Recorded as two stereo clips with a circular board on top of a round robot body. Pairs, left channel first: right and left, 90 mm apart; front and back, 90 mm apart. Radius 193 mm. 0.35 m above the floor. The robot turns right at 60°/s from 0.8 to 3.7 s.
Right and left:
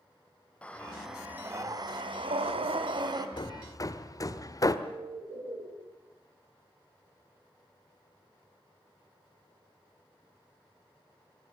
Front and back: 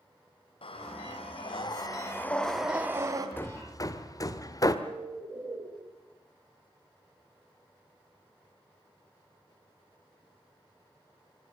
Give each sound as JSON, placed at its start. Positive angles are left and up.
{"t": 0.6, "sound": "breathing", "azimuth_deg": -15, "distance_m": 2.0}
{"t": 3.4, "sound": "hammering", "azimuth_deg": -65, "distance_m": 1.5}
{"t": 4.8, "sound": "a bird", "azimuth_deg": 115, "distance_m": 6.5}